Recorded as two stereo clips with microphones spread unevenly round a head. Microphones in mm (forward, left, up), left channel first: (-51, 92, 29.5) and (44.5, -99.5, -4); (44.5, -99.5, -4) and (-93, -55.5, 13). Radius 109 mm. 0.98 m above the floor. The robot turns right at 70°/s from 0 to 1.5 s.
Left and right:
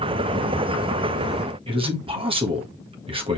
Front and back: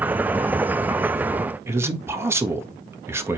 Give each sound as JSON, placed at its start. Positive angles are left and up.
{"t": 1.7, "sound": "a man speaking", "azimuth_deg": -125, "distance_m": 1.7}